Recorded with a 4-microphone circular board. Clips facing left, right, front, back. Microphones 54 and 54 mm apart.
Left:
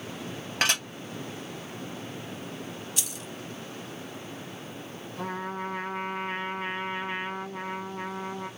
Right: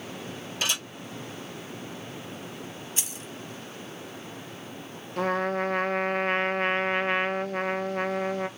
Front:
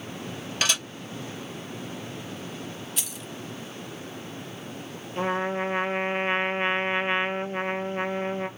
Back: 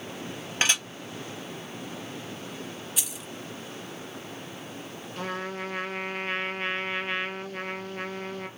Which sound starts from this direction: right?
Keys jangling, at 3.0 s.